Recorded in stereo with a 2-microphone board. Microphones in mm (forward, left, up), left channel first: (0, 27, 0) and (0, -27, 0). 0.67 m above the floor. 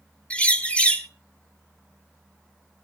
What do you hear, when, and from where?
0.3 s a bird: 20° left (ahead or behind), 1.0 m